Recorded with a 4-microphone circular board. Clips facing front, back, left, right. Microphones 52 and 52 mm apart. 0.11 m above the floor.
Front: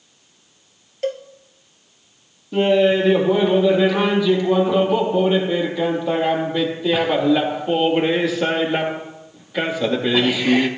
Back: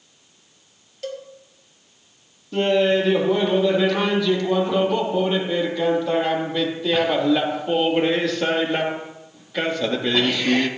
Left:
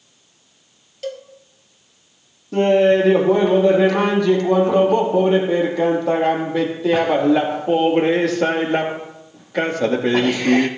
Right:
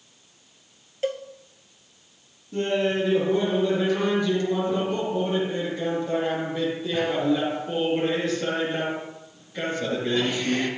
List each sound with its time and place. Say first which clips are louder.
1.0 s a cowbell: front 7 dB, right 1 dB; 35° right, 2.0 m
2.5 s laughter: front 3 dB, left 10 dB; 80° left, 3.5 m